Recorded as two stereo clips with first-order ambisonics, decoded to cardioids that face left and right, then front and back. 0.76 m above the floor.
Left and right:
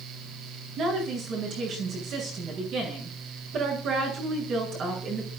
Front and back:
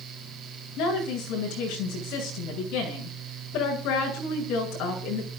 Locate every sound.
0.8 s a woman speaking: 35° right, 9 m